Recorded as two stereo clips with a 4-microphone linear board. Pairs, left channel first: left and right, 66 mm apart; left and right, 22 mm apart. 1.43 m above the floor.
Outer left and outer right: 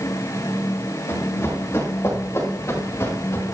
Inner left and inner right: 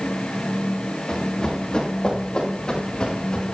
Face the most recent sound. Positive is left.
turn(degrees=45)  # may be behind; listen again after turning